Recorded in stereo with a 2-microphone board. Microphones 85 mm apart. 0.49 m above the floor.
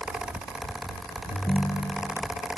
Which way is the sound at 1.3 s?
35° left (ahead or behind).